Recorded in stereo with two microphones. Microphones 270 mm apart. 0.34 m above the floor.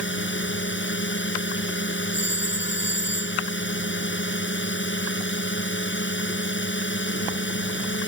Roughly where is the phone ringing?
Left.